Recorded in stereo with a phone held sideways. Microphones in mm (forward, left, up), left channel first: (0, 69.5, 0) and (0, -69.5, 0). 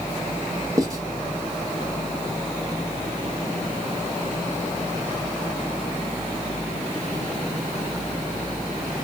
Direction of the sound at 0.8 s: 25° right (ahead or behind).